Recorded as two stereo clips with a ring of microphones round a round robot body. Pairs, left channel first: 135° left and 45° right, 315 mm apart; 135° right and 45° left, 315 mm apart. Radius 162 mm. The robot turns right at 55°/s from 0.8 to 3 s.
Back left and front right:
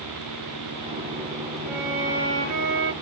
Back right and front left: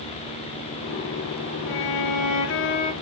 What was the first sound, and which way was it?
A violin, 135° right.